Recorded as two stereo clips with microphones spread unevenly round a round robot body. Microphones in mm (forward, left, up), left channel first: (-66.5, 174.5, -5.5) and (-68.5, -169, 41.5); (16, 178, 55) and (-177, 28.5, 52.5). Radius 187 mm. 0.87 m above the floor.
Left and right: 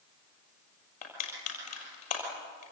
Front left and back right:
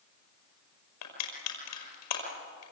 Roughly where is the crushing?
Ahead.